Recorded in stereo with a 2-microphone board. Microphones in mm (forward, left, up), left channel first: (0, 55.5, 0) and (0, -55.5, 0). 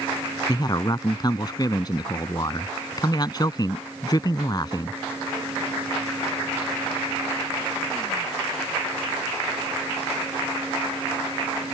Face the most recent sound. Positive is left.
turn(degrees=40)  # may be behind; listen again after turning